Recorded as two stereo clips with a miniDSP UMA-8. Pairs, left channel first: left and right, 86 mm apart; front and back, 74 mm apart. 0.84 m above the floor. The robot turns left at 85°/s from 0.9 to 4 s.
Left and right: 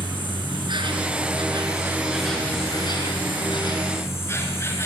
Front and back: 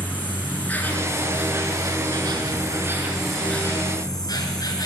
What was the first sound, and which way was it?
An insect, 70° right.